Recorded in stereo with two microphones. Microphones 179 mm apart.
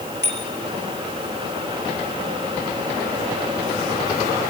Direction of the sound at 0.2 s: 80° right.